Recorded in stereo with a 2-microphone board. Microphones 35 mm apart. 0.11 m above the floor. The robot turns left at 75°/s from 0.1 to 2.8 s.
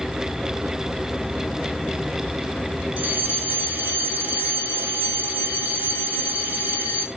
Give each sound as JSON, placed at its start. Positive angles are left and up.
{"t": 3.0, "sound": "a fire alarm", "side_deg": -45, "distance_m": 5.0}